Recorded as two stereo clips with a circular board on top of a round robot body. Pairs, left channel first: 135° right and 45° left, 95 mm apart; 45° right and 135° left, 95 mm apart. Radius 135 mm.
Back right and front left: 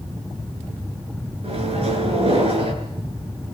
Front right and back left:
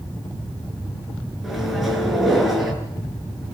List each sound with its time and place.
1.4 s a microwave: 45° left, 8 m